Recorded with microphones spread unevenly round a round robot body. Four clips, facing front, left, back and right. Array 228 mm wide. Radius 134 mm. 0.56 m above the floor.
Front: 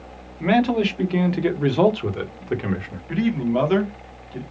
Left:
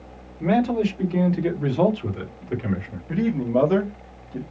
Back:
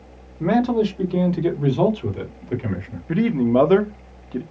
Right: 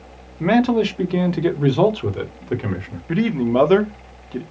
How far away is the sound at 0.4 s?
About 1.6 m.